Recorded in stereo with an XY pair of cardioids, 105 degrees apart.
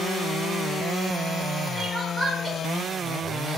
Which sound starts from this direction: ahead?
Crying, at 1.8 s.